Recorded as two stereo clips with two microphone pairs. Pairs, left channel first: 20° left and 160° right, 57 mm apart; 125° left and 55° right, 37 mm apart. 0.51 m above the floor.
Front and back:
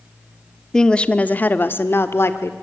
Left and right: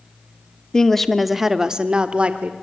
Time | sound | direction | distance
0.7 | a woman speaking | 85° left | 1.0 m